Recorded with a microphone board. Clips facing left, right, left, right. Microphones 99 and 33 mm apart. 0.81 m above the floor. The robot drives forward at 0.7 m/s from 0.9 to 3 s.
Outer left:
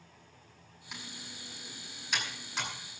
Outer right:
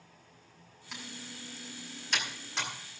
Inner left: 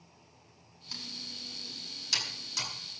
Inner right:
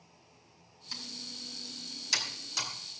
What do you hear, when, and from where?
0.9 s typing on a keyboard: centre (ahead or behind), 8.5 m